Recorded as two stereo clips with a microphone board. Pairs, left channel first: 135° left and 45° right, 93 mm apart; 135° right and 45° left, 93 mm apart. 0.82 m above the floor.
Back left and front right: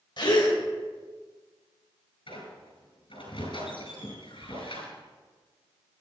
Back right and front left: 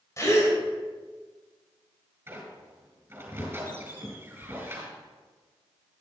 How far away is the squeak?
About 4.5 m.